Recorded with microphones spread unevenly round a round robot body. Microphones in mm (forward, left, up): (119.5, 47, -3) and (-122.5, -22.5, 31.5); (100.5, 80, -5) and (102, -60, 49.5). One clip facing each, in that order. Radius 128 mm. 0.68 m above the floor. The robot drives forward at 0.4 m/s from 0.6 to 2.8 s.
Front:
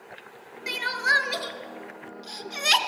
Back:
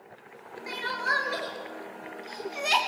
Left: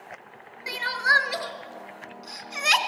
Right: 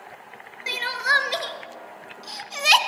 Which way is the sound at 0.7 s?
30° right.